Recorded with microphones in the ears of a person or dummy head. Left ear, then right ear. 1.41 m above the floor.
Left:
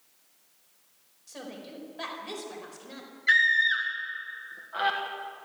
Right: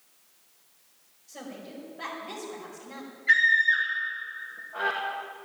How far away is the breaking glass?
I don't hear breaking glass.